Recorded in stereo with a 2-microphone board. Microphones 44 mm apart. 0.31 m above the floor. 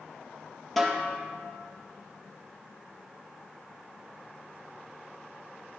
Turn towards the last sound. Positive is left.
turn(degrees=0)  # may be behind; listen again after turning